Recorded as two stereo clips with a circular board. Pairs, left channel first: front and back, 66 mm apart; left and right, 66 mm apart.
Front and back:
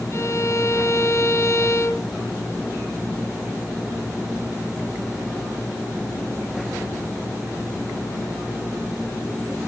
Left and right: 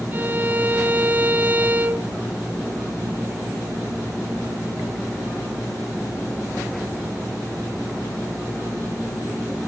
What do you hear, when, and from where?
0.1 s a violin: 35° right, 1.0 m